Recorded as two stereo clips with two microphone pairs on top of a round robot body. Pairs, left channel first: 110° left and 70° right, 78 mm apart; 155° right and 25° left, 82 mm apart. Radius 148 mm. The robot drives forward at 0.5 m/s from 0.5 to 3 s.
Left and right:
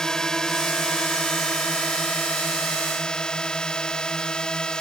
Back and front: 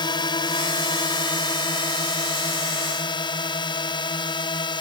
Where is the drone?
170° right.